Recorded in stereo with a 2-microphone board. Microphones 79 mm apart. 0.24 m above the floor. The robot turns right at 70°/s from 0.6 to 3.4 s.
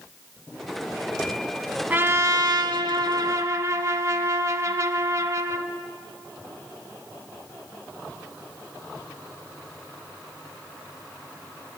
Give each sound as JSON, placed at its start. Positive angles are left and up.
{"t": 1.9, "sound": "a trumpet", "azimuth_deg": -155, "distance_m": 0.6}